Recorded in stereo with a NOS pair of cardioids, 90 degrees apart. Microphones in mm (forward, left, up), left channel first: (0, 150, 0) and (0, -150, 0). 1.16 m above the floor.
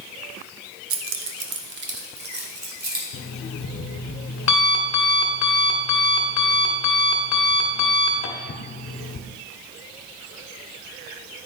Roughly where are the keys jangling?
Ahead right.